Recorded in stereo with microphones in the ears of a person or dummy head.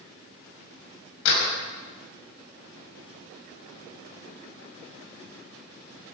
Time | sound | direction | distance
1.2 | a door slam | 75° left (ahead or behind) | 5 m